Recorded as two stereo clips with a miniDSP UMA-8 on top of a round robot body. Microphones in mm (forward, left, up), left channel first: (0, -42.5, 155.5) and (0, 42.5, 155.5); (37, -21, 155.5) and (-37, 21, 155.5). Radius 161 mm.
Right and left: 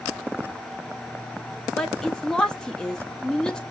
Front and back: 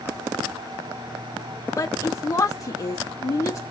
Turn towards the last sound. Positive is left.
turn(degrees=-10)